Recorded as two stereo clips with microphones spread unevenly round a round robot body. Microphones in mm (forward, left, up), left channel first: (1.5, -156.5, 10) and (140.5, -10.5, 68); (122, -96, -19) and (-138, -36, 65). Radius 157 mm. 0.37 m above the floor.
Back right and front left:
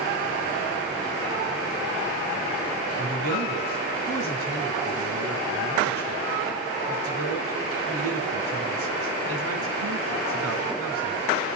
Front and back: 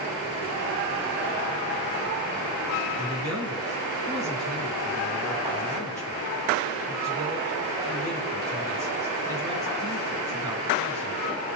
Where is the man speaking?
85° left, 3.5 m.